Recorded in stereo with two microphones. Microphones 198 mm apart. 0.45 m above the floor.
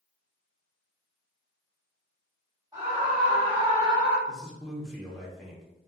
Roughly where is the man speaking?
Centre.